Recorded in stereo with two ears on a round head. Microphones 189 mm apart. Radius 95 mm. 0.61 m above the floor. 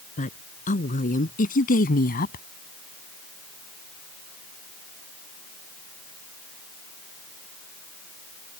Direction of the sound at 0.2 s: 35° left (ahead or behind).